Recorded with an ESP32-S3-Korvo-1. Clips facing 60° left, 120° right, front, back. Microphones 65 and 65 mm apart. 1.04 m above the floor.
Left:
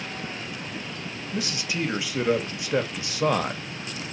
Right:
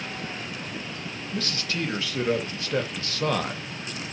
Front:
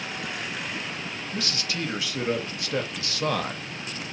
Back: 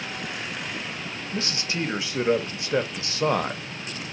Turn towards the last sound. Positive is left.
turn(degrees=130)